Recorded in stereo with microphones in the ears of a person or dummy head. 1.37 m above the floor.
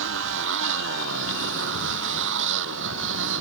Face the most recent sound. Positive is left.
turn(degrees=-70)  # may be behind; listen again after turning